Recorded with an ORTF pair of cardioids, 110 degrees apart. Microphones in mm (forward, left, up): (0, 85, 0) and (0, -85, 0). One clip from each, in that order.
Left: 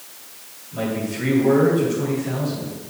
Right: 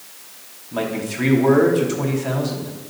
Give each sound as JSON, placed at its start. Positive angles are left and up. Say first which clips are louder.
{"t": 0.7, "sound": "a man speaking", "louder": "right 2 dB", "azimuth_deg": -70, "distance_m": 4.0}